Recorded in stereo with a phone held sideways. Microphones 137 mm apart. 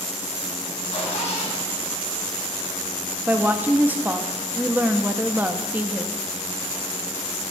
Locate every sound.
0.9 s a zipper: 55° left (ahead or behind), 5 m
3.3 s a woman speaking: 15° right (ahead or behind), 0.7 m